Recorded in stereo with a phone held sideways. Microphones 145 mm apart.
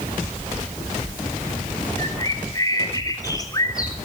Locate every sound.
2.0 s a bird: 25° left (ahead or behind), 3 m